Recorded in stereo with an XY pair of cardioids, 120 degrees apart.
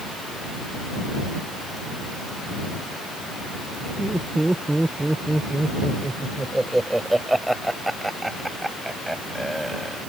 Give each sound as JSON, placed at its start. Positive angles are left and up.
{"t": 4.0, "sound": "laughter", "azimuth_deg": -10}